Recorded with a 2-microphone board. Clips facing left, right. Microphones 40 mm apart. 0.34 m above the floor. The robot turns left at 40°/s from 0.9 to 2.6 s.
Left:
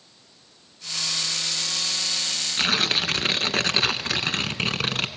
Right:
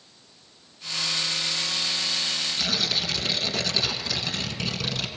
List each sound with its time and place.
2.6 s tearing paper: 50° left (ahead or behind), 0.9 m